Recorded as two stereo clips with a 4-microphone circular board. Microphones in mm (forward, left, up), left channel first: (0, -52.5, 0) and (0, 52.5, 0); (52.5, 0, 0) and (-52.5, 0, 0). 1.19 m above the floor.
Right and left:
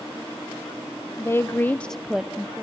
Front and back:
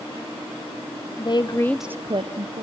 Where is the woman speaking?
25° right, 1.0 m; by 2.6 s 165° left, 1.2 m.